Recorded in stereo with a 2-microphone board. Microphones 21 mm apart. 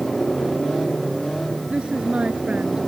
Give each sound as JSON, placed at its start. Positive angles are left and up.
{"t": 1.7, "sound": "a woman speaking", "side_deg": -70}